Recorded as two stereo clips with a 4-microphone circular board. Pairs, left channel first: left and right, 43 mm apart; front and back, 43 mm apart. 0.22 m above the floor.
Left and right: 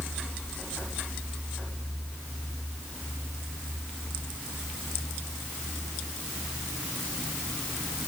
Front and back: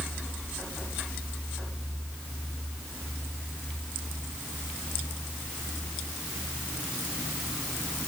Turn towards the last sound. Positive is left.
No sound to turn to.